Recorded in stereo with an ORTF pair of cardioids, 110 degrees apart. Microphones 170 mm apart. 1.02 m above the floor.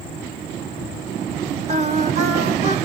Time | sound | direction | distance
1.7 | singing | 40° right | 1.7 m